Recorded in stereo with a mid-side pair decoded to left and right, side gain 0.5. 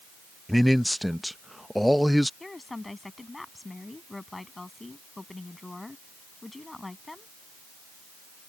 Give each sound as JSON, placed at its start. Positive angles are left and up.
{"t": 0.5, "sound": "a man speaking", "azimuth_deg": 0}
{"t": 2.4, "sound": "a woman speaking", "azimuth_deg": 15}